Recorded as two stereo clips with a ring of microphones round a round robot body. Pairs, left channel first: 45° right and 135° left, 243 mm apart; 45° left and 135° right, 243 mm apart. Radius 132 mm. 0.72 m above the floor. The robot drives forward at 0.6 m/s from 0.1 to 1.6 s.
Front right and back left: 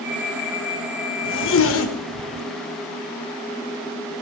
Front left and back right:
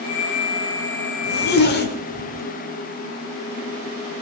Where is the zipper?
5° right, 1.6 m.